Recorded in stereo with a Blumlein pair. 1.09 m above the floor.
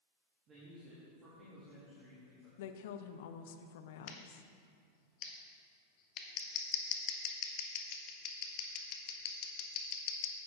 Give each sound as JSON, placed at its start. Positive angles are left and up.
{"t": 0.5, "sound": "a man speaking", "azimuth_deg": -25, "distance_m": 2.0}
{"t": 2.6, "sound": "a woman speaking", "azimuth_deg": 55, "distance_m": 0.6}
{"t": 4.1, "sound": "scissors", "azimuth_deg": 40, "distance_m": 1.1}